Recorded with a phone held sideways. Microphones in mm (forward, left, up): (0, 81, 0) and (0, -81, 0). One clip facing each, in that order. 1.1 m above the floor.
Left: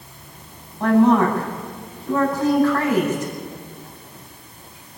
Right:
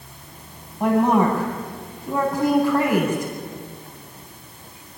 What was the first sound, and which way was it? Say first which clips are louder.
A woman speaking: left 3 dB; 10° right (ahead or behind).